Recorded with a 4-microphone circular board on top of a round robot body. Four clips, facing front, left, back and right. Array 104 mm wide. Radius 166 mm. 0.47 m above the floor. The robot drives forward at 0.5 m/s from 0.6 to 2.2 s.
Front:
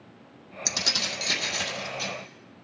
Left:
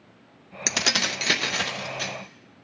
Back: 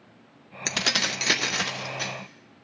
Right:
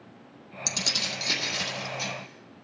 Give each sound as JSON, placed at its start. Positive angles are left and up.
{"t": 0.7, "sound": "keys jangling", "azimuth_deg": 115, "distance_m": 0.6}